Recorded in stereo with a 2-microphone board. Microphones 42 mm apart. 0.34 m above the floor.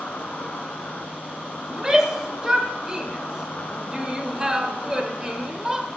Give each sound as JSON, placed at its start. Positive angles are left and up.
{"t": 0.0, "sound": "an insect", "side_deg": 45, "distance_m": 1.0}
{"t": 1.7, "sound": "a shout", "side_deg": -15, "distance_m": 0.9}